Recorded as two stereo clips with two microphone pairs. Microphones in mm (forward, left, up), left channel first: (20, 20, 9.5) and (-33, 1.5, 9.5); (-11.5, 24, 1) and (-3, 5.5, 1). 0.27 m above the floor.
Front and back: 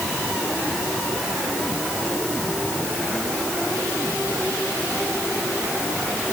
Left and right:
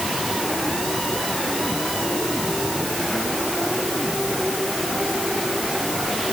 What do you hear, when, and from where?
Only background noise.